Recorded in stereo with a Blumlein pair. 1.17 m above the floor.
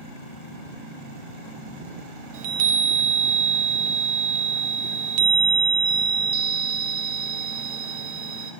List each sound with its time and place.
2.3 s a chime: 50° right, 0.7 m